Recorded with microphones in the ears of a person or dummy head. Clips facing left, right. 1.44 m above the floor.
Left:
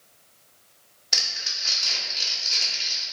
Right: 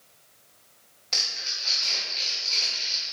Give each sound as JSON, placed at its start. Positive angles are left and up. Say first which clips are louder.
{"t": 1.1, "sound": "crumpling", "louder": "left 1 dB", "side_deg": 10, "distance_m": 2.0}